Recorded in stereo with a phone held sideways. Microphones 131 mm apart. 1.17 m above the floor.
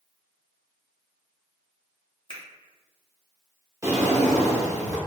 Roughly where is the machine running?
No machine running in this recording.